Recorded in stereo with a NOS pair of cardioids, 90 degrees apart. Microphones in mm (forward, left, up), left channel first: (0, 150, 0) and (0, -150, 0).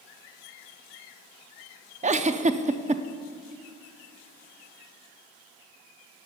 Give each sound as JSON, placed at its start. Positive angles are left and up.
{"t": 2.0, "sound": "a giggle", "azimuth_deg": -25, "distance_m": 0.5}